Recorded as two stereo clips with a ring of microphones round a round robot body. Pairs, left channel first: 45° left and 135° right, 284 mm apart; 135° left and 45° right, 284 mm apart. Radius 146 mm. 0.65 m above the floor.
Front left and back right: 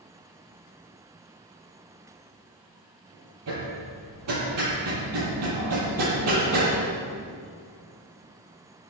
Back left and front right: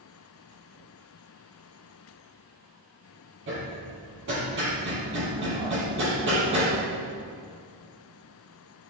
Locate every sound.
3.5 s hammering: 95° right, 6.5 m